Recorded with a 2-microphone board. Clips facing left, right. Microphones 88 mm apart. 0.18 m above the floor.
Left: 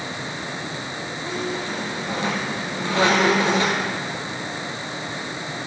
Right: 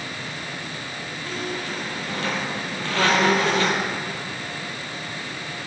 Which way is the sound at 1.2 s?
20° left (ahead or behind).